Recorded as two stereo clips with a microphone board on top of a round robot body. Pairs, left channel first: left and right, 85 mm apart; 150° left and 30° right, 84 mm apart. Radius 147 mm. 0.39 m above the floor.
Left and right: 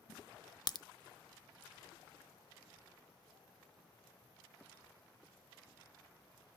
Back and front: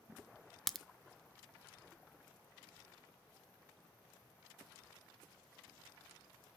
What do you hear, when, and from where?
0.7 s a crack: 60° left, 0.5 m